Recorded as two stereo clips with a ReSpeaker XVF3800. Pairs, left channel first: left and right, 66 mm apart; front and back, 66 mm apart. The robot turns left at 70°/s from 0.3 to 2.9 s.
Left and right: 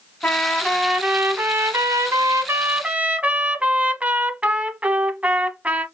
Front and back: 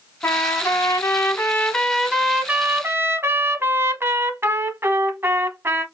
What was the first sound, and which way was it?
A trumpet, 30° left.